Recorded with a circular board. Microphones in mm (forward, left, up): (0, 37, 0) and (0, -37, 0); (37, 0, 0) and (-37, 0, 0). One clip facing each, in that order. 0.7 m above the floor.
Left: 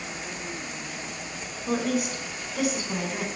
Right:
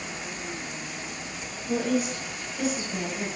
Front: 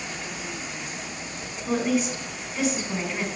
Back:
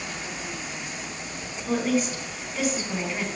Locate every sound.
1.7 s a woman speaking: 90° left, 3 m